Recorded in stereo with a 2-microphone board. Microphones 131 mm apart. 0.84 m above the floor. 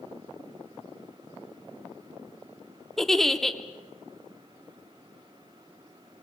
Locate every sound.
3.0 s a giggle: centre (ahead or behind), 0.9 m